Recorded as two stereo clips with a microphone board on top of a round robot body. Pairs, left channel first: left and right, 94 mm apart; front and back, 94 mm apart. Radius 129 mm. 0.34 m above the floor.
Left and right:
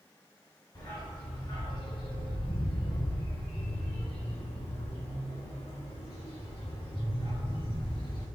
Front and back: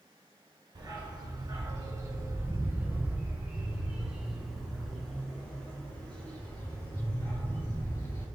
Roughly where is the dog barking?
Behind left.